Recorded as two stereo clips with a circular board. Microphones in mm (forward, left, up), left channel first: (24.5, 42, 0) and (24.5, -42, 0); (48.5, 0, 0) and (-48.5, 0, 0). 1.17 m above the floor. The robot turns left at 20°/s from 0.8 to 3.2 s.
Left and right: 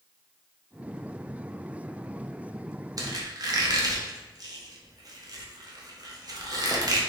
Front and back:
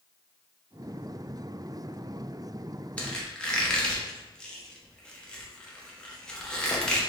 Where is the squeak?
75° right, 0.7 m; by 7.0 s 80° right, 0.7 m.